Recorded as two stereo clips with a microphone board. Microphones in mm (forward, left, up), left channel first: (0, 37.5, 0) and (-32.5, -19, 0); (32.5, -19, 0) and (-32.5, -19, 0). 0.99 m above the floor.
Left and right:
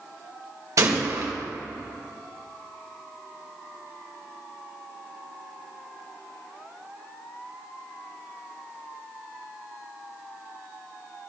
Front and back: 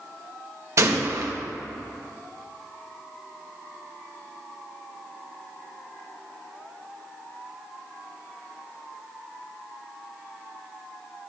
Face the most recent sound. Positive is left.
turn(degrees=-145)